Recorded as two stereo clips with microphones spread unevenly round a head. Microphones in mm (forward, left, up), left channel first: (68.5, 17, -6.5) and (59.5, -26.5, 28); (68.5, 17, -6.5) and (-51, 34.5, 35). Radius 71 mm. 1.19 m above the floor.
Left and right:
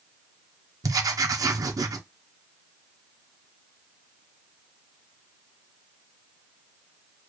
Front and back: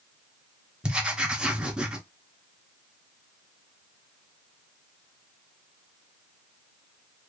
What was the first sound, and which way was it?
Writing, 80° right.